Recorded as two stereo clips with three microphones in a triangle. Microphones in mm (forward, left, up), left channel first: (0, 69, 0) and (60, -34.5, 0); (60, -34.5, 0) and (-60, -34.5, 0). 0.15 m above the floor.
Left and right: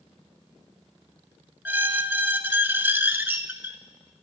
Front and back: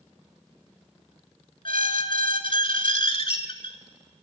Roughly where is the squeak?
Ahead.